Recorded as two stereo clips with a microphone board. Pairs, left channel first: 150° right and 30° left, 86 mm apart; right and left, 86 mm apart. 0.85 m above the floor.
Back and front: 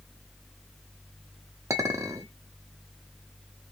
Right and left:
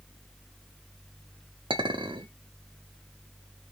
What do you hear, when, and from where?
1.7 s a clink: 80° left, 0.9 m